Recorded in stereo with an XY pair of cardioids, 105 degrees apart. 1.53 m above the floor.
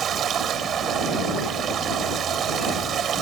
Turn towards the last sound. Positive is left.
turn(degrees=-55)